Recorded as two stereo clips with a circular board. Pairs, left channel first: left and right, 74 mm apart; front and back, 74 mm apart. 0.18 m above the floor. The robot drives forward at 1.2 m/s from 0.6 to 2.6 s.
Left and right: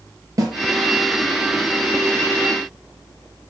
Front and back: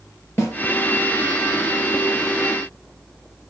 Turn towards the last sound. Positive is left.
turn(degrees=-115)